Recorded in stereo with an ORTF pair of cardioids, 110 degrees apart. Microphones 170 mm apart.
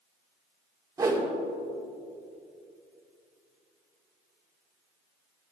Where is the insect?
I don't hear an insect.